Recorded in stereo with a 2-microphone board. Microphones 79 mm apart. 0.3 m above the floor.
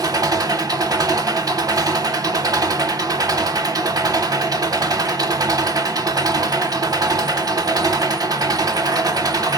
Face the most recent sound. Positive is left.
turn(degrees=-60)  # may be behind; listen again after turning